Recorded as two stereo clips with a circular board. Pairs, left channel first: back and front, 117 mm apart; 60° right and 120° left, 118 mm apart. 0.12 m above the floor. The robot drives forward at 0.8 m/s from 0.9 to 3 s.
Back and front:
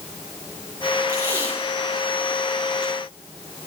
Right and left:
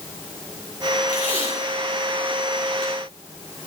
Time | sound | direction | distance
1.1 | tape being pulled | 70° right | 5.5 m